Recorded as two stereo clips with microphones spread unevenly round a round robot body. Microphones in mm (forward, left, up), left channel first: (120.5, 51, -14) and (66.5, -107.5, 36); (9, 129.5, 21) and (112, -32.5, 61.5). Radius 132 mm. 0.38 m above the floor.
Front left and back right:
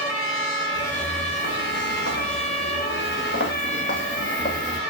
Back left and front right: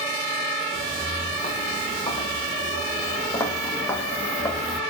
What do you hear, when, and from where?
0.7 s footsteps: 65° left, 4.5 m; by 4.8 s 30° left, 2 m